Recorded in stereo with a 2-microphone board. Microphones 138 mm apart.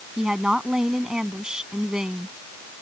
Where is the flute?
I don't hear a flute.